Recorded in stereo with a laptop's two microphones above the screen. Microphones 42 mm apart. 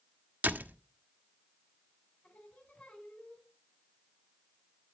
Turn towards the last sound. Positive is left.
turn(degrees=40)  # may be behind; listen again after turning